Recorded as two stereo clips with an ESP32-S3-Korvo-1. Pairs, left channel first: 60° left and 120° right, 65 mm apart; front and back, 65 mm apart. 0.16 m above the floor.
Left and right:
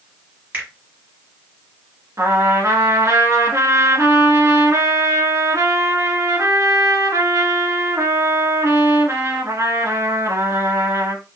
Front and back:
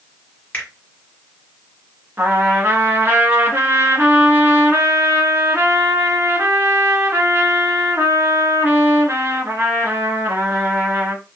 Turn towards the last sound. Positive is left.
turn(degrees=-135)